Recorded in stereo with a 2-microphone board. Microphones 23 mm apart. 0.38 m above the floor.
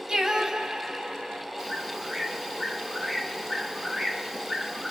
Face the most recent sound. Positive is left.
turn(degrees=-5)  # may be behind; listen again after turning